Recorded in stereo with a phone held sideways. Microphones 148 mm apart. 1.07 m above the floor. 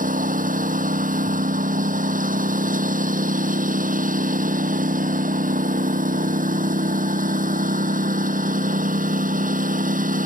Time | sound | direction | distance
0.0 | a lawn mower | 65° right (ahead or behind) | ?